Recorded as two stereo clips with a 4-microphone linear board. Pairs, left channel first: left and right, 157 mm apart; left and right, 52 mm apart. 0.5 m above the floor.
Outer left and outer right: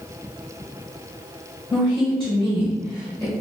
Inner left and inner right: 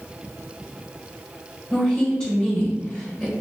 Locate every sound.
1.7 s a woman speaking: 10° left (ahead or behind), 1.6 m